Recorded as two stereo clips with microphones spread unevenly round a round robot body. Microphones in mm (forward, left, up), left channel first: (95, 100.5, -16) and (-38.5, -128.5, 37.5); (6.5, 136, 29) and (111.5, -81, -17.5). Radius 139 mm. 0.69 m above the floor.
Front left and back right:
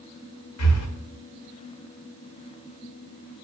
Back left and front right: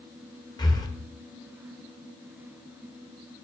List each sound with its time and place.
0.6 s breathing: 40° left, 1.4 m